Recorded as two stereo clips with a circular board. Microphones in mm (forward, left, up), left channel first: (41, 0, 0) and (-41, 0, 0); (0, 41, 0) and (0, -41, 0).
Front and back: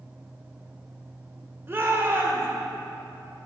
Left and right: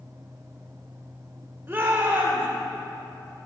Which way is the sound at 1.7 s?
140° right.